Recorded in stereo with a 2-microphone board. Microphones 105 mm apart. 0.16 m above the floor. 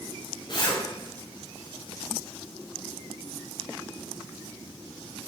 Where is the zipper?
45° left (ahead or behind), 2.0 m.